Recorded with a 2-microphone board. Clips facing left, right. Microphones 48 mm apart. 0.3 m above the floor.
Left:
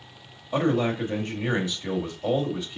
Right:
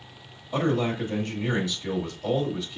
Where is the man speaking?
25° left (ahead or behind), 1.1 m.